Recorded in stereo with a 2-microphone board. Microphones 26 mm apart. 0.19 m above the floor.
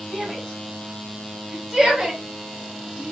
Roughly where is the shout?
Centre.